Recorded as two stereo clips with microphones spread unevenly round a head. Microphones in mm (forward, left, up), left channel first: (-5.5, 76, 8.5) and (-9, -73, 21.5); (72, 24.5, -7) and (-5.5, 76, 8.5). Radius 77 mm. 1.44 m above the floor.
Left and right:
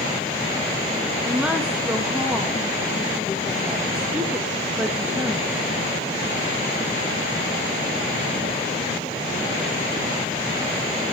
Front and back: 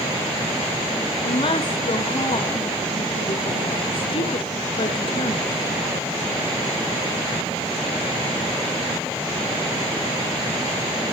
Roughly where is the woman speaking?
Ahead.